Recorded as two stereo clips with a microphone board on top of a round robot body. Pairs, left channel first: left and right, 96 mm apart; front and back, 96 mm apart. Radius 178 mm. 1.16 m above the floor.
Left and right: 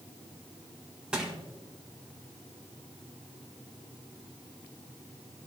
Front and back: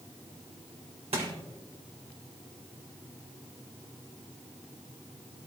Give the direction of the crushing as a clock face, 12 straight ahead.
6 o'clock.